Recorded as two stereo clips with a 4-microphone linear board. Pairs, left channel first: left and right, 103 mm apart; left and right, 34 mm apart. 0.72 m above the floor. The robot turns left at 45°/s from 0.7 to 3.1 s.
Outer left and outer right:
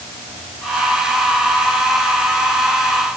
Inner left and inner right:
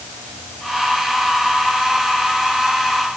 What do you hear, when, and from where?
Only background noise.